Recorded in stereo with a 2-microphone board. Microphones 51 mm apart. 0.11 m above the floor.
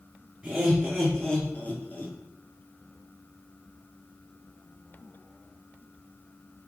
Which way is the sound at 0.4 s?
15° right (ahead or behind).